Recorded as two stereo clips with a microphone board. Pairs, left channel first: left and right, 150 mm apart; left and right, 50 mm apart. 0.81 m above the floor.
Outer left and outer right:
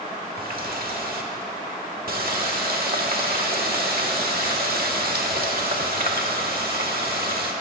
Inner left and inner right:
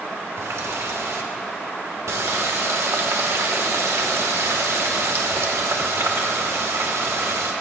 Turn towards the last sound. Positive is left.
turn(degrees=-80)